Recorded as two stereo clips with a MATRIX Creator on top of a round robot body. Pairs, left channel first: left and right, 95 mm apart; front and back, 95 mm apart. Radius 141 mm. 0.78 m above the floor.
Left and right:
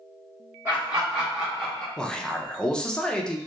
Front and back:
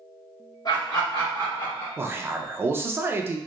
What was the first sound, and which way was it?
Laughter, 35° right.